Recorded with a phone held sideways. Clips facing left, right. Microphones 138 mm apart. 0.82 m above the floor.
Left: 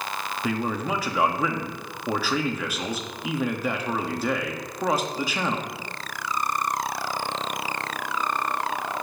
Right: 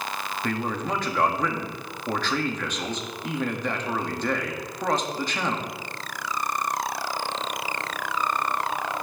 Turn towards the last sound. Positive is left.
turn(degrees=5)  # may be behind; listen again after turning